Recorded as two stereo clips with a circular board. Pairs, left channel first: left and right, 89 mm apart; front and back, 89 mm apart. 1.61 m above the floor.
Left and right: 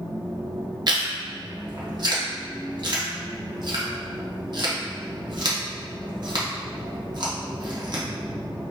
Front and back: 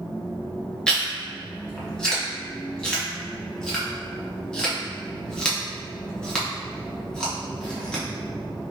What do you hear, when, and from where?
0.9 s chewing: 80° right, 0.9 m